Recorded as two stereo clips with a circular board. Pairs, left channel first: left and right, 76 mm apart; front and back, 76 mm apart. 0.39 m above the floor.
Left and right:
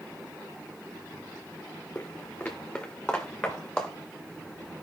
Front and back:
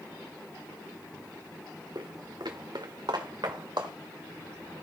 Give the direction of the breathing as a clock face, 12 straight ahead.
No breathing in this recording.